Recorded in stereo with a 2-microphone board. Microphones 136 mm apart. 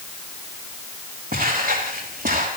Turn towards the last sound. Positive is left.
turn(degrees=-80)